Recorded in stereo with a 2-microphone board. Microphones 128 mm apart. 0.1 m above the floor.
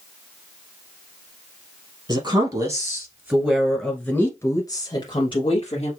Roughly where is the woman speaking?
Right.